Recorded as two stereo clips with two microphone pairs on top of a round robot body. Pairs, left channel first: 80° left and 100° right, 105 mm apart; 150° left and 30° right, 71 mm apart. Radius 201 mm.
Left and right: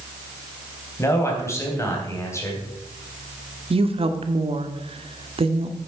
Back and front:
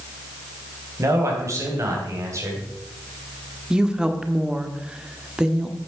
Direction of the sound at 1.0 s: 15° left.